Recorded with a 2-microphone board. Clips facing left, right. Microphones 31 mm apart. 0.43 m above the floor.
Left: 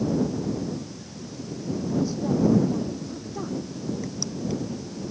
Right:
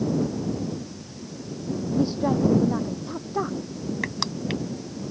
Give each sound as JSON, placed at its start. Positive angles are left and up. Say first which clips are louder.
{"t": 2.0, "sound": "a woman speaking", "louder": "right 2 dB", "side_deg": -35}
{"t": 4.0, "sound": "crushing", "louder": "right 2 dB", "side_deg": -70}